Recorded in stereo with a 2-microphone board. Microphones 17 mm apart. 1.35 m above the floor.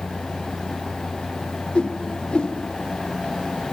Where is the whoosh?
60° left (ahead or behind), 1.9 m.